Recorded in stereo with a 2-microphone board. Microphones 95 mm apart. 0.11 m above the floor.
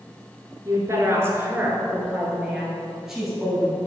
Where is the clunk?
No clunk in this recording.